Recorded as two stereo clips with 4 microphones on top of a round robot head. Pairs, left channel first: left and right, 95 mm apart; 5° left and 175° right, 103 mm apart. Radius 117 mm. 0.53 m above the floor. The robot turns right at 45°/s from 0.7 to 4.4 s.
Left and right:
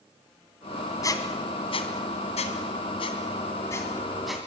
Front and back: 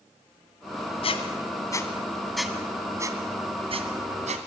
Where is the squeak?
35° left, 2.5 m; by 4.5 s 175° right, 2.5 m.